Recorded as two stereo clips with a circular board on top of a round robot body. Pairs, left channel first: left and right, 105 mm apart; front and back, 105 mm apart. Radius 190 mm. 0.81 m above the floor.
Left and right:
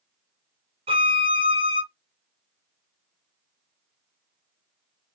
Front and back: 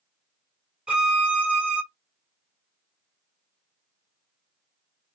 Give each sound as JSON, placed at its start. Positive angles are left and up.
{"t": 0.9, "sound": "a violin", "azimuth_deg": -100, "distance_m": 1.3}